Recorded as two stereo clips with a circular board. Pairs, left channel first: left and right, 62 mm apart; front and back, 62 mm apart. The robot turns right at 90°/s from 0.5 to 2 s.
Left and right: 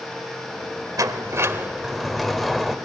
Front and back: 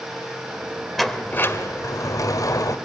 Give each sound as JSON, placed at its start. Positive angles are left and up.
{"t": 1.0, "sound": "a sliding door", "azimuth_deg": -90, "distance_m": 2.0}